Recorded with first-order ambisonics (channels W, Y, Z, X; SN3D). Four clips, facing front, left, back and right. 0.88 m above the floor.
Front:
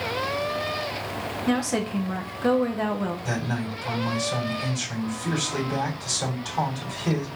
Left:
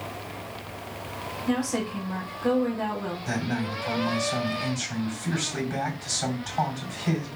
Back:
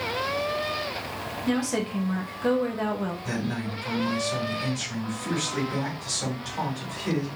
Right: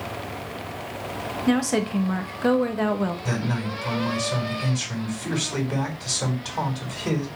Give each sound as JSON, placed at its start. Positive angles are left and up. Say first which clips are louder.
{"t": 1.5, "sound": "a woman speaking", "louder": "right 5 dB, front 1 dB", "azimuth_deg": -75, "distance_m": 0.9}
{"t": 3.2, "sound": "a man speaking", "louder": "right 1 dB, front 1 dB", "azimuth_deg": -70, "distance_m": 2.5}